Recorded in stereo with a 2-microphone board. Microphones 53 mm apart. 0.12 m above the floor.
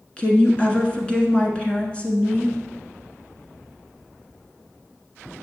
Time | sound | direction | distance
0.2 | a woman speaking | 20° left (ahead or behind) | 1.1 m